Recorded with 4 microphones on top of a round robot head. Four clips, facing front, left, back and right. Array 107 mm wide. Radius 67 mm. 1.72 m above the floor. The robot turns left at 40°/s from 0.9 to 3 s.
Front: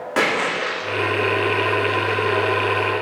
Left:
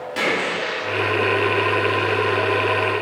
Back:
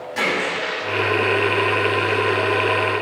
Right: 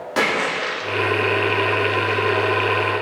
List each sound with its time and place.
0.2 s a splash: 30° right, 3 m